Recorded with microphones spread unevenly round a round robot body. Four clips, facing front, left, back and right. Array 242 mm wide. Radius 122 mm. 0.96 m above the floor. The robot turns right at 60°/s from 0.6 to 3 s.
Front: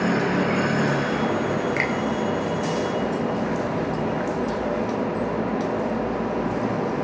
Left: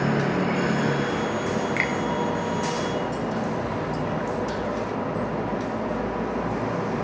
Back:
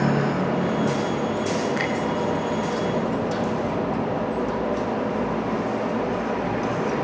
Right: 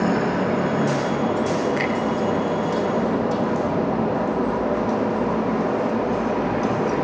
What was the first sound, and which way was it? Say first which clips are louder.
A finger snap: right 4 dB, even; 25° left.